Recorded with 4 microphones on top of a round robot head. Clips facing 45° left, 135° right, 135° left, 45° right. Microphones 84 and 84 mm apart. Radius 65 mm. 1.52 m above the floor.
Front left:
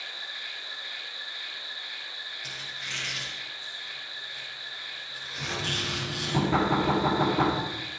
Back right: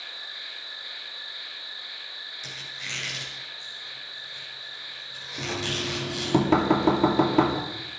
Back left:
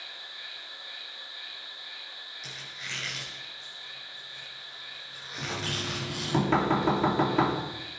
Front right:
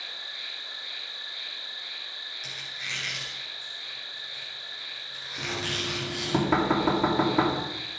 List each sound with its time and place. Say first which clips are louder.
0.0 s an insect: front left 2 dB, front right 3 dB; 60° right, 3 m
2.4 s a squeak: back right 2 dB, front right 2 dB; 135° right, 6.5 m
5.4 s knocking: back right 3 dB, front right 1 dB; 125° right, 3 m